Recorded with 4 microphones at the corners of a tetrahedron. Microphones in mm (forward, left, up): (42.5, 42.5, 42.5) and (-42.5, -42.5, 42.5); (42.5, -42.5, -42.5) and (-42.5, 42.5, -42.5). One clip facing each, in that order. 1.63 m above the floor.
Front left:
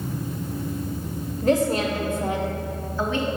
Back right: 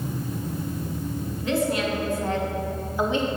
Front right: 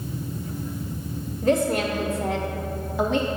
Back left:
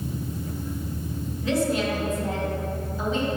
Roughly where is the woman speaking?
Ahead.